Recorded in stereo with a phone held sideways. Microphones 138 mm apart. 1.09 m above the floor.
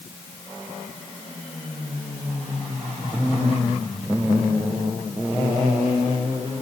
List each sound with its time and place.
Only background noise.